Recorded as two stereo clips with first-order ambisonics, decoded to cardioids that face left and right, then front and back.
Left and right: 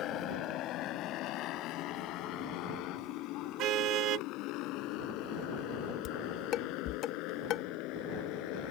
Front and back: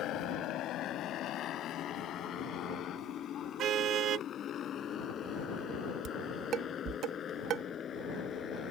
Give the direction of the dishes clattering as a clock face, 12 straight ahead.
8 o'clock.